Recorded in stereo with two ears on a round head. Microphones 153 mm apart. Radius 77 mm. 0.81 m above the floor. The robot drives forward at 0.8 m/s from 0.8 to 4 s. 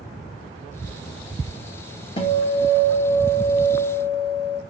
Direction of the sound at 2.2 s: 35° left (ahead or behind).